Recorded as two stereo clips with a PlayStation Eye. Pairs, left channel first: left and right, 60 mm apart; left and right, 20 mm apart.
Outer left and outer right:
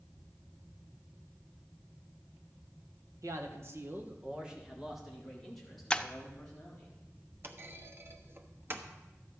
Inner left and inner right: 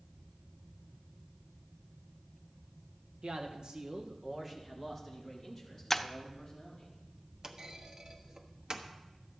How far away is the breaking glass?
About 0.5 m.